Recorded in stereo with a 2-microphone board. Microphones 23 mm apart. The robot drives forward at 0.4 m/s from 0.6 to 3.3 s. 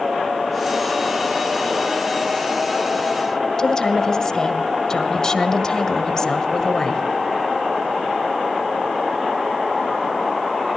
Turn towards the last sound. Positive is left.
turn(degrees=25)  # may be behind; listen again after turning